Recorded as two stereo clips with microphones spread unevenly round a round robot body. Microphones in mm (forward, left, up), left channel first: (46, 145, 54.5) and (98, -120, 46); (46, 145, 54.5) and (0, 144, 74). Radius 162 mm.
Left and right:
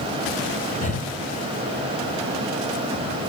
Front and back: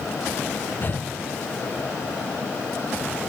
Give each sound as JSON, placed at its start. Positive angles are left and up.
{"t": 0.8, "sound": "breathing", "azimuth_deg": 40, "distance_m": 1.4}